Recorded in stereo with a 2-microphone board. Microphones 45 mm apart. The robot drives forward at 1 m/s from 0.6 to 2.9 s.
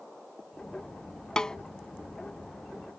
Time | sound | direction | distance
1.4 | a snare drum | 15° left (ahead or behind) | ?